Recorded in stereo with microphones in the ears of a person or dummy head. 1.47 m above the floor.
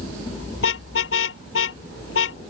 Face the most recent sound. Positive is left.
turn(degrees=85)